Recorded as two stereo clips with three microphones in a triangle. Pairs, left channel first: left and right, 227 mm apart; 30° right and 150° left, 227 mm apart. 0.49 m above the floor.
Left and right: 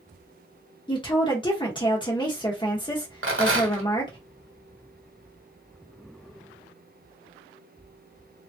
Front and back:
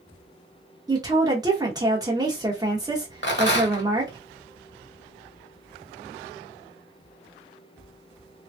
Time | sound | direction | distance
0.9 | a woman speaking | 110° left | 0.8 m
3.2 | a rattle | 65° right | 0.9 m